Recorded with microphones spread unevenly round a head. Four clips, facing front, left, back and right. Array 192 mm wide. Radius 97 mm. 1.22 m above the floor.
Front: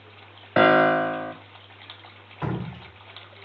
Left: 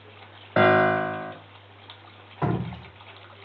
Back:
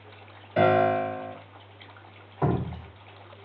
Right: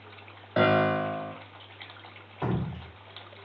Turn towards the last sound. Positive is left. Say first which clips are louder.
# left 4 dB, back 4 dB
turn(degrees=150)